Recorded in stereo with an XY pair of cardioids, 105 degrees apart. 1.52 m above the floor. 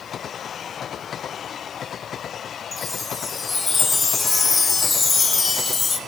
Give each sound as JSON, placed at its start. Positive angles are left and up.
{"t": 2.7, "sound": "a chime", "azimuth_deg": 30, "distance_m": 1.6}